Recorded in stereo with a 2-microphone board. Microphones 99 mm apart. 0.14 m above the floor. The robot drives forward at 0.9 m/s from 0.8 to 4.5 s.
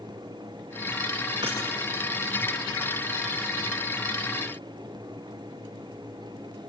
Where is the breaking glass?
45° right (ahead or behind), 9.5 m; by 1.6 s 40° right (ahead or behind), 9.5 m.